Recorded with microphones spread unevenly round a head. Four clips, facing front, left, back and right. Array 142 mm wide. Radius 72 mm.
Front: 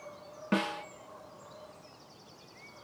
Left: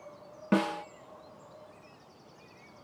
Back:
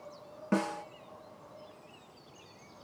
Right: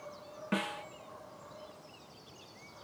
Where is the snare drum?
100° left.